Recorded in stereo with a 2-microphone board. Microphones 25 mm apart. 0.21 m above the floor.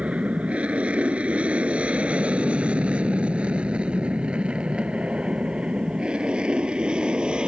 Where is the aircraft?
65° right (ahead or behind); by 7.5 s 45° right (ahead or behind).